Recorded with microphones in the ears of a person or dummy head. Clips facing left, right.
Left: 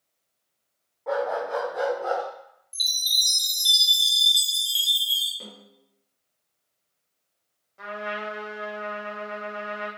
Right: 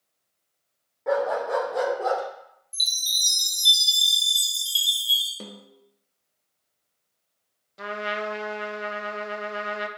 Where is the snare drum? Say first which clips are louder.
Right 4 dB; 55° right (ahead or behind), 0.7 m.